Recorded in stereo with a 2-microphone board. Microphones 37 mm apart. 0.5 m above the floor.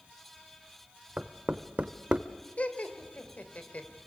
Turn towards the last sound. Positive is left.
turn(degrees=35)  # may be behind; listen again after turning